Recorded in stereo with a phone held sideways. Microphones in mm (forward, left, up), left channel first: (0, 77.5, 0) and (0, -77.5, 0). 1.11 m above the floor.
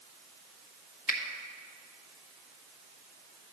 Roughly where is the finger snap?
Left.